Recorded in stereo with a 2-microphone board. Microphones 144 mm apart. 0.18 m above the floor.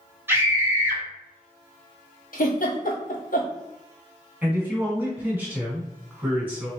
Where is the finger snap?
I don't hear a finger snap.